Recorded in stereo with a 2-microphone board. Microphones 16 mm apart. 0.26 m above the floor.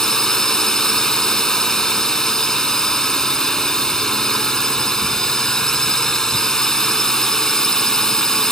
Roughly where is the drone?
Left.